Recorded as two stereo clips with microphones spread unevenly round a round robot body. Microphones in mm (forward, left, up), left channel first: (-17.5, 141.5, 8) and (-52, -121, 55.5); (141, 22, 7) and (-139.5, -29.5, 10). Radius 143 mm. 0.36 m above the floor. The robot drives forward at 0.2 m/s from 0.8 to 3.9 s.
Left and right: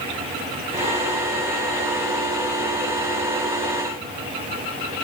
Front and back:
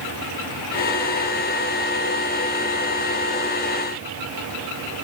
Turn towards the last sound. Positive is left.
No sound to turn to.